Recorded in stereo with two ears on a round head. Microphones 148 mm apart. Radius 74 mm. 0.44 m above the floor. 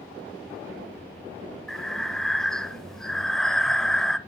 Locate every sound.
1.7 s breathing: 5° left (ahead or behind), 0.6 m